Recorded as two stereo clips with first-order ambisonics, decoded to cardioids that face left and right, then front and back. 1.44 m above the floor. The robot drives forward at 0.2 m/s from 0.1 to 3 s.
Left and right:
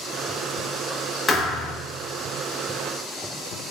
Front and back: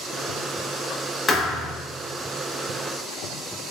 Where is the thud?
45° left, 0.7 m; by 1.8 s 70° left, 0.7 m.